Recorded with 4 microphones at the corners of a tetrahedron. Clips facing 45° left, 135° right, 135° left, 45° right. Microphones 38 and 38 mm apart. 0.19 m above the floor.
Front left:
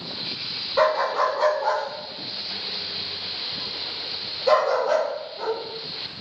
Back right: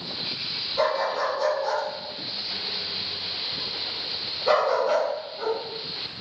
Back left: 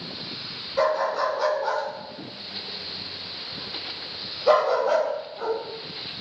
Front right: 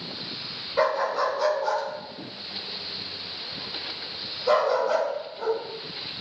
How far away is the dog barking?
About 0.7 m.